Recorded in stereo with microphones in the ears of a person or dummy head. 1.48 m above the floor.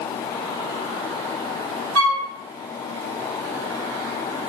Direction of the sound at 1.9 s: 75° right (ahead or behind).